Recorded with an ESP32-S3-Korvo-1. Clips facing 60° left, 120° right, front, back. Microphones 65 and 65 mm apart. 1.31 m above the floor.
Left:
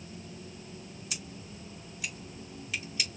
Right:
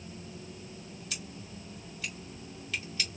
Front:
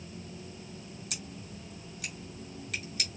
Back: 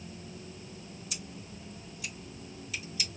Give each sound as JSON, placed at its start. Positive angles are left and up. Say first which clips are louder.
{"t": 1.1, "sound": "scissors", "louder": "right 1 dB, front 1 dB", "azimuth_deg": -15, "distance_m": 2.5}